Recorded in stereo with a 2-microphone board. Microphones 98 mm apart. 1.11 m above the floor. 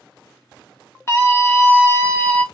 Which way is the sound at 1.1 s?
30° left (ahead or behind).